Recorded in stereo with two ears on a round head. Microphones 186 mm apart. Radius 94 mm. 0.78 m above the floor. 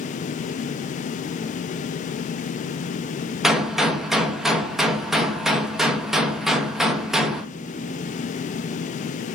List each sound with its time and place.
3.4 s a gunshot: centre (ahead or behind), 0.6 m